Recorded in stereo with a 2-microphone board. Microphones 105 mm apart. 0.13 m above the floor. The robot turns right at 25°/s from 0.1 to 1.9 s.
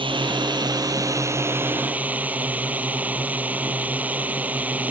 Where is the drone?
60° right; by 4.9 s 15° right.